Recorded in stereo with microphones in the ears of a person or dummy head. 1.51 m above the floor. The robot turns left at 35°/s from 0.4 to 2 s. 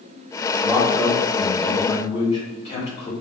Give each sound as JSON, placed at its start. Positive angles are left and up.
{"t": 0.6, "sound": "a man speaking", "azimuth_deg": -165, "distance_m": 1.0}